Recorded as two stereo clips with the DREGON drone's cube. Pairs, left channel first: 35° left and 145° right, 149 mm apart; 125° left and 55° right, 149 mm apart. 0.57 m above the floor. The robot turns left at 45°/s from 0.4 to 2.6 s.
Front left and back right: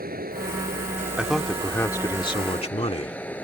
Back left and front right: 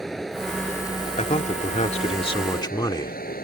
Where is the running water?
145° right; by 3.4 s 115° left.